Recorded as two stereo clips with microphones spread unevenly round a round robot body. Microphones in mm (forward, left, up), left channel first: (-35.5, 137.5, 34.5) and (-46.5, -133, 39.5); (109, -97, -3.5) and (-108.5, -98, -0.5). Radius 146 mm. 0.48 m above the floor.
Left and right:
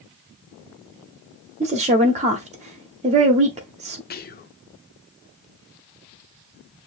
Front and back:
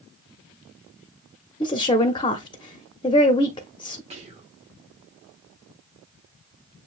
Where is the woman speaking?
50° right, 0.7 m.